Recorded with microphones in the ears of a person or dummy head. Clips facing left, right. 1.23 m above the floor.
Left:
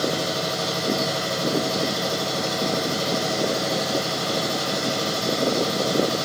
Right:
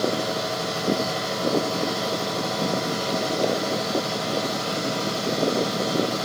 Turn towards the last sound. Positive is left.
turn(degrees=55)  # may be behind; listen again after turning